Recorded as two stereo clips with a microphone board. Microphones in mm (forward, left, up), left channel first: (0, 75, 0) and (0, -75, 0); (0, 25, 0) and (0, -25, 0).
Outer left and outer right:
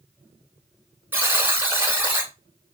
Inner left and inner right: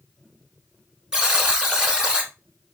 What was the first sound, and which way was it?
A buzzer, 15° right (ahead or behind).